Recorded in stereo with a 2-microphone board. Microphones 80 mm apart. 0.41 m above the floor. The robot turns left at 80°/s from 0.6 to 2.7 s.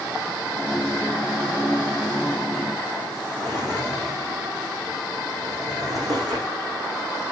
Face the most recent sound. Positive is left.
turn(degrees=-50)  # may be behind; listen again after turning